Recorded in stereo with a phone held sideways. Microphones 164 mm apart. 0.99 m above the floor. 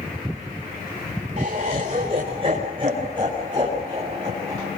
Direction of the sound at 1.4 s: 45° right (ahead or behind).